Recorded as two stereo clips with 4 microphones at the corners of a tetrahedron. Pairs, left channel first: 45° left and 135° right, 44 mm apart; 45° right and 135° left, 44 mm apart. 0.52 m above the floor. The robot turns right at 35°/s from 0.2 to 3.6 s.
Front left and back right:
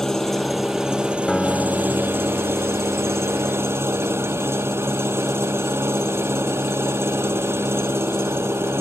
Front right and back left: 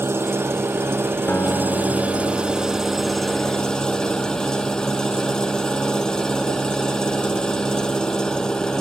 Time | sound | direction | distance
0.0 | an engine running | 125° left | ?
1.3 | a guitar | 40° right | ?